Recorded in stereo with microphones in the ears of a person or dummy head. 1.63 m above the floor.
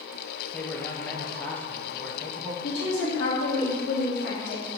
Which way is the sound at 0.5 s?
10° left (ahead or behind).